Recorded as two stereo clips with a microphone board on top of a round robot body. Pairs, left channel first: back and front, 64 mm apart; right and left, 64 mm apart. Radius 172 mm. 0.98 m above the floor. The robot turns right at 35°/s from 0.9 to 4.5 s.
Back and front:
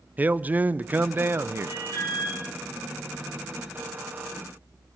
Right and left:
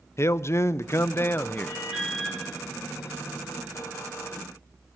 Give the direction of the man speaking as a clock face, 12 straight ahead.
2 o'clock.